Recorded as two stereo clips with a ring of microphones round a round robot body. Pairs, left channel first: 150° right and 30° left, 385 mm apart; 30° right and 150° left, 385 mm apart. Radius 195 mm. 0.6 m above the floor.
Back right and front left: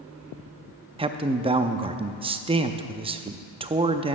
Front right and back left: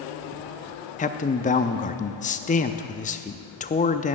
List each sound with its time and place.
1.0 s a man speaking: 15° right, 0.6 m